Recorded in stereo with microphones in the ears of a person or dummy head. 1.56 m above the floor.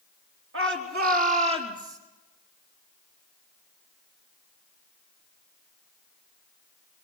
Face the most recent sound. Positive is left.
turn(degrees=-50)  # may be behind; listen again after turning